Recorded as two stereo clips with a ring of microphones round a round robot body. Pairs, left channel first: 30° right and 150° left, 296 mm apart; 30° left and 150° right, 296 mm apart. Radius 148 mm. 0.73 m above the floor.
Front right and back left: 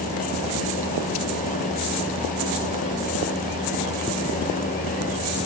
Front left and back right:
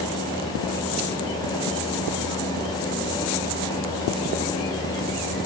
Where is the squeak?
No squeak in this recording.